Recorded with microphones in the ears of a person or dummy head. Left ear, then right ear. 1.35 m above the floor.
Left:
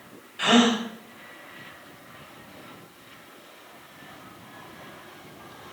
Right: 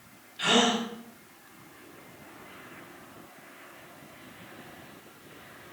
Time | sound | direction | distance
0.4 | a gasp | 30° left (ahead or behind) | 5 m